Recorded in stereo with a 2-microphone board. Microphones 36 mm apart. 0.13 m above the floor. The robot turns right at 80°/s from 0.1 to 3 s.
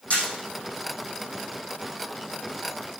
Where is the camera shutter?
40° left (ahead or behind), 4 m; by 0.2 s 30° left (ahead or behind), 4 m.